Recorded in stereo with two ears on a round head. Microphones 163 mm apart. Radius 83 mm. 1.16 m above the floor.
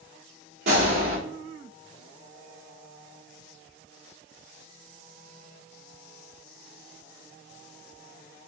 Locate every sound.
0.7 s a gunshot: 60° right (ahead or behind), 4 m